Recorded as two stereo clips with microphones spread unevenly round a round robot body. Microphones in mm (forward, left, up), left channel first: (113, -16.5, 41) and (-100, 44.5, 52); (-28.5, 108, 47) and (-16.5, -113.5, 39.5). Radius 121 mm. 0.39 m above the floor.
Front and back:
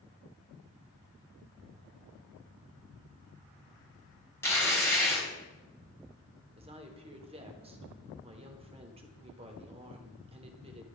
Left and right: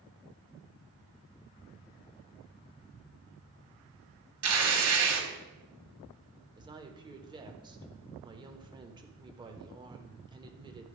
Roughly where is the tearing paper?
Right.